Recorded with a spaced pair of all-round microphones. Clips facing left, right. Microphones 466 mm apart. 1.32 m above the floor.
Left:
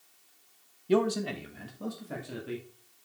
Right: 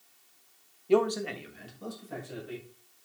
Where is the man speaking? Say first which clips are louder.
Right 1 dB; 35° left (ahead or behind), 1.1 m; by 2.7 s 85° left, 3 m.